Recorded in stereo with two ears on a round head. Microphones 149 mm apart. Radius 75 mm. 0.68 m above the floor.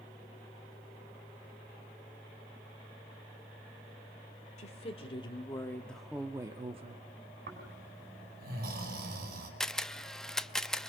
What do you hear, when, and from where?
4.6 s a woman speaking: 40° left (ahead or behind), 2.5 m; by 7.1 s 45° right (ahead or behind), 1.6 m
7.5 s snoring: 65° right (ahead or behind), 5 m
9.6 s a camera shutter: 5° left (ahead or behind), 0.6 m